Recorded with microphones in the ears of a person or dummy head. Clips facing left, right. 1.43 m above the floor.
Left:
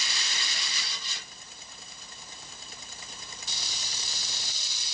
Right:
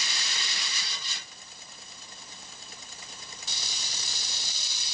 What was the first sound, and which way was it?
Only background noise.